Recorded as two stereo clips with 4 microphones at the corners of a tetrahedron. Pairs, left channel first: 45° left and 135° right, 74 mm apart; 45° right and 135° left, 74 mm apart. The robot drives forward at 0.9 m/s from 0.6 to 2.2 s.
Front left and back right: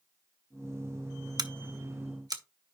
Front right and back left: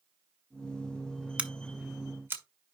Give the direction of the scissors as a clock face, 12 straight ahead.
5 o'clock.